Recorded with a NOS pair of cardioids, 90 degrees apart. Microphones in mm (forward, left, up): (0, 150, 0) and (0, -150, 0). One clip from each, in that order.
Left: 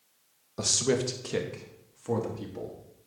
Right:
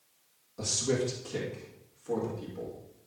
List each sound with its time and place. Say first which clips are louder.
0.6 s a man speaking: left 3 dB; 55° left, 1.5 m; by 2.7 s 70° left, 3 m